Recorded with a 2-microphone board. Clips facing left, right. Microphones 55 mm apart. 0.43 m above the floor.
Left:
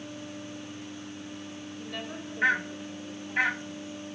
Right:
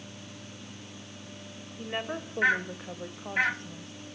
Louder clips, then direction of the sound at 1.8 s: Right 6 dB; 25° right (ahead or behind).